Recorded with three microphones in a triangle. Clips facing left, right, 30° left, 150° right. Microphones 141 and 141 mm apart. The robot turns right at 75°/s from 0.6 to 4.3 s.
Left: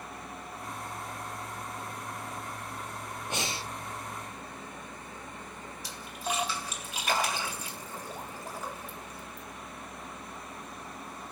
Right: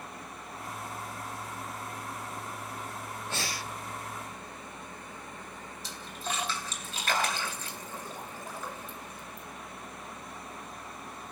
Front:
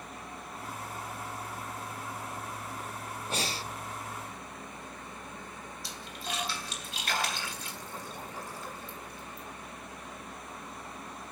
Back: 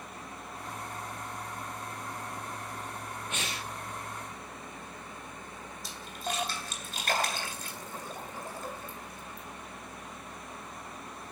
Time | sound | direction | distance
3.3 | breathing | 30° left | 0.6 m
5.8 | a splash | 165° left | 3 m